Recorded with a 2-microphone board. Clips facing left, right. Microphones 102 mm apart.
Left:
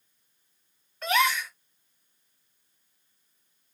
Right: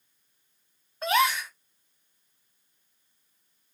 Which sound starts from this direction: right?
A gasp, at 1.0 s.